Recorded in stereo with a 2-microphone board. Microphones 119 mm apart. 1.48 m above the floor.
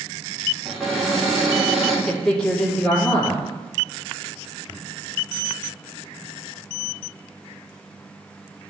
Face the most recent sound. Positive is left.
turn(degrees=5)  # may be behind; listen again after turning